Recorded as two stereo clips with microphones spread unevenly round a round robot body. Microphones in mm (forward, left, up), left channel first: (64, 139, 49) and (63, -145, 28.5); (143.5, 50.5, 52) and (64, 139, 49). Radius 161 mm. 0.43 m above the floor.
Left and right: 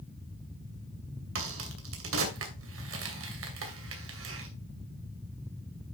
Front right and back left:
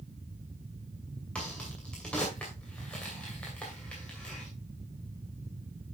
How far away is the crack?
About 2.5 m.